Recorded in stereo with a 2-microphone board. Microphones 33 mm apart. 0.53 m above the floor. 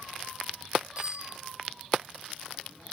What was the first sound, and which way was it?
A bicycle bell, 35° right (ahead or behind).